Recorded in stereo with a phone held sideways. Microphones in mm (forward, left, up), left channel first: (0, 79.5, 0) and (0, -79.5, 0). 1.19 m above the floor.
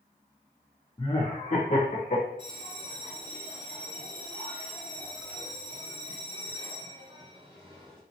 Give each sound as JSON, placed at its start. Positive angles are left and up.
{"t": 1.0, "sound": "laughter", "side_deg": 30, "distance_m": 0.7}
{"t": 2.4, "sound": "a bell", "side_deg": -30, "distance_m": 1.9}